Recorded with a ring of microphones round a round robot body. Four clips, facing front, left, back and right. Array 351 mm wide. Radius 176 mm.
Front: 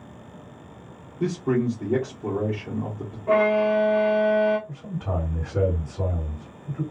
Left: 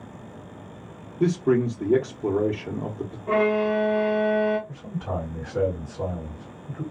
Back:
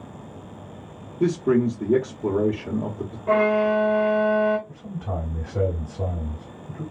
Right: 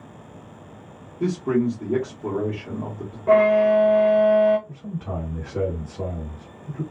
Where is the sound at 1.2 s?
135° left, 0.9 m.